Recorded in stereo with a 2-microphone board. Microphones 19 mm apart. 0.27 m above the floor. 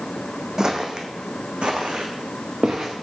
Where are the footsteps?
40° right (ahead or behind), 0.9 m; by 2.9 s 80° right, 1.7 m.